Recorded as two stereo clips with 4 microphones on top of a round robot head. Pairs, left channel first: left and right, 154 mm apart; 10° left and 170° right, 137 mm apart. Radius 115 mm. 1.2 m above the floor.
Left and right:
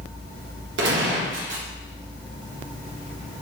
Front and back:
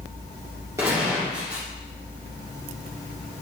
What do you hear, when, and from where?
0.8 s a gunshot: 95° right, 0.8 m